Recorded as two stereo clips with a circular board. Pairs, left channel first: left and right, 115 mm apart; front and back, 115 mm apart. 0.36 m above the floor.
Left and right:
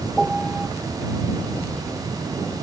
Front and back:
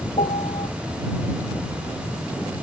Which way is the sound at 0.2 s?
5° right.